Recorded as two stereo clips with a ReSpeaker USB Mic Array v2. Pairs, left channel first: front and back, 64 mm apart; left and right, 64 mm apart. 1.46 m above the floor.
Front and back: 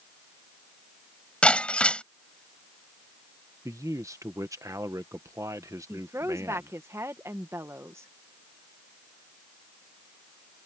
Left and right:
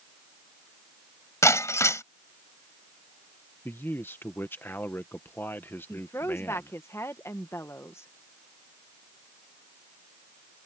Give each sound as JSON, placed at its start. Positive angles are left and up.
{"t": 1.4, "sound": "breaking glass", "azimuth_deg": 70}
{"t": 3.6, "sound": "a man speaking", "azimuth_deg": 145}
{"t": 5.9, "sound": "a woman speaking", "azimuth_deg": 135}